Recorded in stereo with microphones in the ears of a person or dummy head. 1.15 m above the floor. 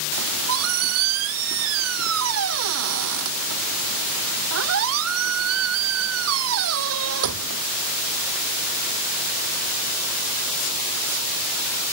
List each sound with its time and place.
0.2 s a squeak: 85° right